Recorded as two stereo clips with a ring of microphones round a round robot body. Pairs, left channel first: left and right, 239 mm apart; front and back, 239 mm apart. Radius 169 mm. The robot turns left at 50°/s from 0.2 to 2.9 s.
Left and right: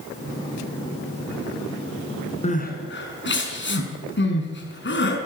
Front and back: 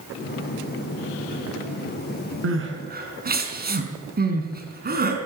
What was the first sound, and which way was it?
Crying, 155° left.